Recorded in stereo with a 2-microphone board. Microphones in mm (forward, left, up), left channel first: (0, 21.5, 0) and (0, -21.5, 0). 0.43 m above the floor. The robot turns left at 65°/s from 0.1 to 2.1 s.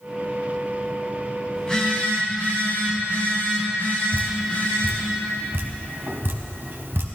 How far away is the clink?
I don't hear a clink.